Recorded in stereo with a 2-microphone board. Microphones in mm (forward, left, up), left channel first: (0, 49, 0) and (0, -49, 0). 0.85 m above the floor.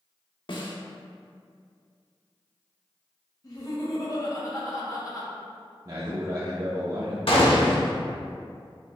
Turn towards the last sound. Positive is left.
turn(degrees=75)  # may be behind; listen again after turning